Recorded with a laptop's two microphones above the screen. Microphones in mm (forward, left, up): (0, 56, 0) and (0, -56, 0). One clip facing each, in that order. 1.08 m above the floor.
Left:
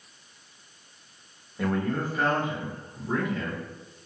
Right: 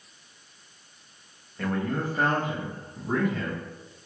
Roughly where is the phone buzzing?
No phone buzzing in this recording.